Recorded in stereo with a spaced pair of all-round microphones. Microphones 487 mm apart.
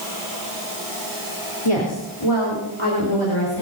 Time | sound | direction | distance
1.6 | a woman speaking | 80° left | 3.5 m